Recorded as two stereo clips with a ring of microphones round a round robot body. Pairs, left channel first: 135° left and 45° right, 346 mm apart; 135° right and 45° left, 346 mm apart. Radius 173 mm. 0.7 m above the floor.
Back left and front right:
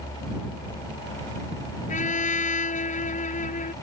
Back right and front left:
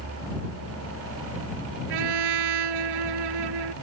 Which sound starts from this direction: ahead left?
A trumpet, at 1.9 s.